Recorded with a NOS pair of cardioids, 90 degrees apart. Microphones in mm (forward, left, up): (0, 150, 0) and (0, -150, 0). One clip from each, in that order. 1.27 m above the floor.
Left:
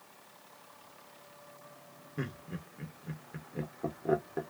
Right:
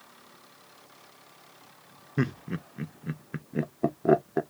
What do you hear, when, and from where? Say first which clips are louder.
2.2 s laughter: right 9 dB; 45° right, 0.5 m